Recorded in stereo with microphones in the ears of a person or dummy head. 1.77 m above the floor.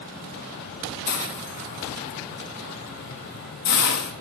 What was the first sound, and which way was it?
A hiss, 55° left (ahead or behind).